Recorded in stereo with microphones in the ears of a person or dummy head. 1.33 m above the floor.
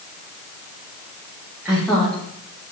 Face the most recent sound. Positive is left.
turn(degrees=25)  # may be behind; listen again after turning